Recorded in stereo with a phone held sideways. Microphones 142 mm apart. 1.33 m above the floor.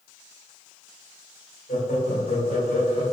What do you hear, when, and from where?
1.7 s laughter: 75° left (ahead or behind), 1.5 m; by 3.0 s 85° left, 2.5 m